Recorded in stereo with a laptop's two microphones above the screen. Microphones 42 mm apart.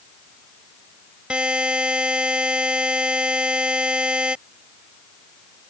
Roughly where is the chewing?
I don't hear chewing.